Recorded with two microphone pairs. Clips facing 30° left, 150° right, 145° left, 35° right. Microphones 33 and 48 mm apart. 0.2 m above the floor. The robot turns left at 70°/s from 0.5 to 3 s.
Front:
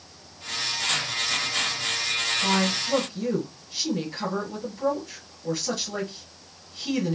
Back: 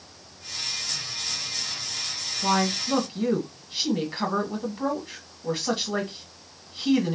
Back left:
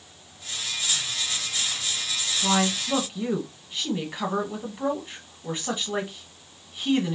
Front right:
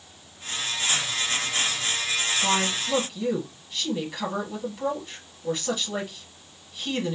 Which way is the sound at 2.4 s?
130° right.